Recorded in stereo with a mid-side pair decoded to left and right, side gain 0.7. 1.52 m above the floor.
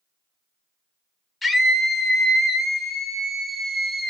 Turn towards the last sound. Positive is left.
turn(degrees=-5)